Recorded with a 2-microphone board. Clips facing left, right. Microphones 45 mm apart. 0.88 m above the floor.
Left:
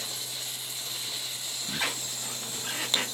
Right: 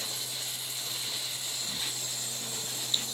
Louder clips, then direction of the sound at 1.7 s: Left 10 dB; 80° left.